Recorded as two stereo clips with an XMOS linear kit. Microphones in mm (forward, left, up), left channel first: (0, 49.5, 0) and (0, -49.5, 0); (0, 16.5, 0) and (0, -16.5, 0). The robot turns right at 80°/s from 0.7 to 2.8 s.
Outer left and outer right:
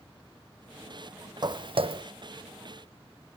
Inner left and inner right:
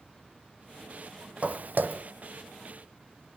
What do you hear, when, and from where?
1.4 s footsteps: 45° right (ahead or behind), 0.5 m; by 2.0 s 65° right (ahead or behind), 0.5 m